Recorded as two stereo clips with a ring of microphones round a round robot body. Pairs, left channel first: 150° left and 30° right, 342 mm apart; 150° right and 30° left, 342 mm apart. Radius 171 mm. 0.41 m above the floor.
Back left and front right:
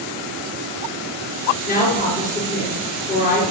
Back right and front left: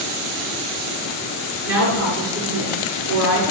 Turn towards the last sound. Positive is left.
turn(degrees=85)